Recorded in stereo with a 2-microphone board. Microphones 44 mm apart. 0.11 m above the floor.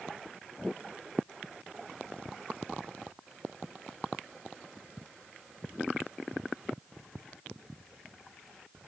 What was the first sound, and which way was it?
Only background noise.